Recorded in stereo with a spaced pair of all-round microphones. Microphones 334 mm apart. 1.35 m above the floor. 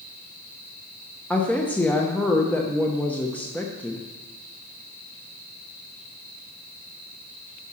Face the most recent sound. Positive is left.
turn(degrees=5)  # may be behind; listen again after turning